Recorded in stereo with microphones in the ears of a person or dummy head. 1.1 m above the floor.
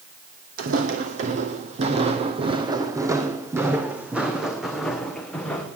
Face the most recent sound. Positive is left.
turn(degrees=10)  # may be behind; listen again after turning